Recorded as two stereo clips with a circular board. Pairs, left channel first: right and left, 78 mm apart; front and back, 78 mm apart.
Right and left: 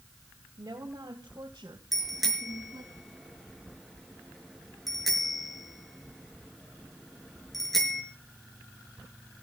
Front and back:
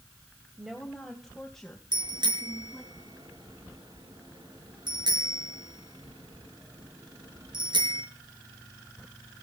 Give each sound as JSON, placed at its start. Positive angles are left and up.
{"t": 0.6, "sound": "a woman speaking", "azimuth_deg": 95, "distance_m": 2.5}
{"t": 1.9, "sound": "a bicycle bell", "azimuth_deg": 180, "distance_m": 5.5}